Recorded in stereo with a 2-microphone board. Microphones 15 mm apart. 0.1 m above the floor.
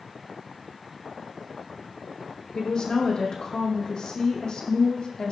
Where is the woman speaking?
60° left (ahead or behind), 4.5 m.